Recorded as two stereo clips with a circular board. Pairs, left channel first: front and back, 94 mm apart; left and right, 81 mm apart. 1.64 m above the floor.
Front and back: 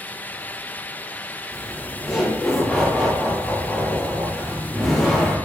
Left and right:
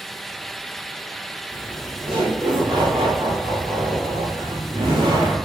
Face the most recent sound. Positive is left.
turn(degrees=-90)